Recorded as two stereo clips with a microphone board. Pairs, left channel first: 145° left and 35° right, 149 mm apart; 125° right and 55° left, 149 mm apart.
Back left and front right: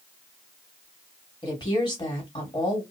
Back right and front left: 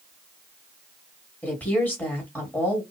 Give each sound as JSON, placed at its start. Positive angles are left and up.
{"t": 1.4, "sound": "a woman speaking", "azimuth_deg": 165, "distance_m": 1.4}